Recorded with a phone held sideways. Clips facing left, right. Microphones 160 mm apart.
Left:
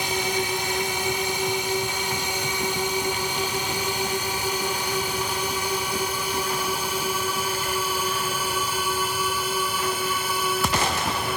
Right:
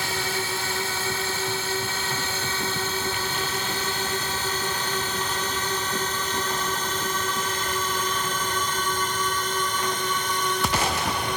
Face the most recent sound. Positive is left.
turn(degrees=5)  # may be behind; listen again after turning